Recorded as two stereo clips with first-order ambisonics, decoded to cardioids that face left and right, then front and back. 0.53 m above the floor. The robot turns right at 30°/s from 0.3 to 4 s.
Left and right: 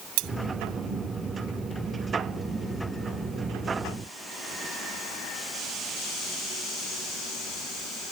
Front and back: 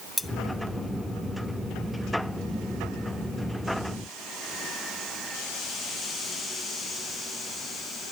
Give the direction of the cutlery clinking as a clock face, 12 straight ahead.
3 o'clock.